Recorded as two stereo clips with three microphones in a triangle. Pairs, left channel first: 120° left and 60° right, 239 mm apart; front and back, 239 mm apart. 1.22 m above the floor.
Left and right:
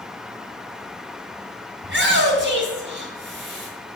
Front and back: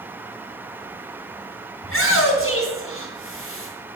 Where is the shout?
25° right, 1.8 m.